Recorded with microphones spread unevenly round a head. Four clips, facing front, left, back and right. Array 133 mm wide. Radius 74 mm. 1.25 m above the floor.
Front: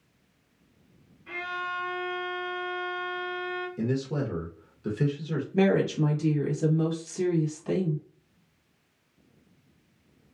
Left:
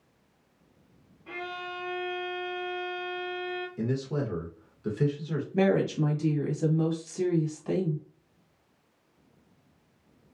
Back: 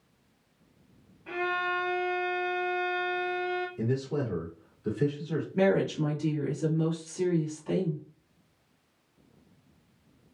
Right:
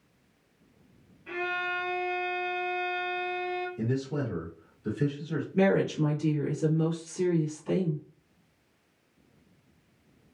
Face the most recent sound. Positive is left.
turn(degrees=65)